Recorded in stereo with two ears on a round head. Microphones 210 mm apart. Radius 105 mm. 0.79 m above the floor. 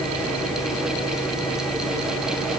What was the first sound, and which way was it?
Only background noise.